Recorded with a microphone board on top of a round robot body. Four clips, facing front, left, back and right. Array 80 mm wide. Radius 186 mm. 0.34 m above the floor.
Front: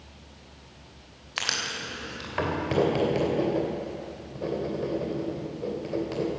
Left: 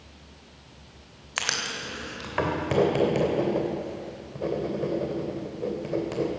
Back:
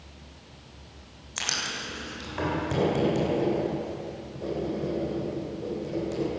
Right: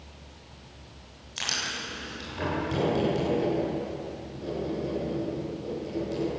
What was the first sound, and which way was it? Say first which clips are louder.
Writing: left 3 dB, front 1 dB; 65° left.